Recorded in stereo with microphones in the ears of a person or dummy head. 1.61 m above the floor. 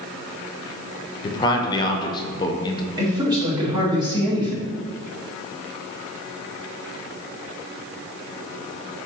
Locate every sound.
1.2 s a man speaking: 20° left (ahead or behind), 0.5 m
3.0 s a man speaking: 20° right (ahead or behind), 1.2 m